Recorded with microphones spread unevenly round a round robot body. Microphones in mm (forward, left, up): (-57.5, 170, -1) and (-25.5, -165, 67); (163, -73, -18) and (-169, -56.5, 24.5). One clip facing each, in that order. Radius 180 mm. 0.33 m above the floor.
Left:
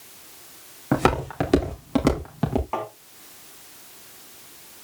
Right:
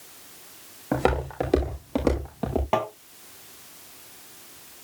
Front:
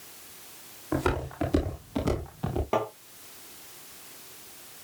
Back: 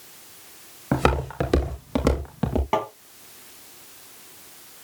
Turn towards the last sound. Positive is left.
turn(degrees=-110)